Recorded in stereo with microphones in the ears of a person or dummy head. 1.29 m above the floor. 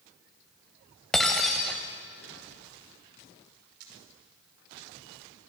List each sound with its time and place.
1.1 s breaking glass: 5° left (ahead or behind), 1.1 m
3.8 s a camera shutter: 60° right (ahead or behind), 5 m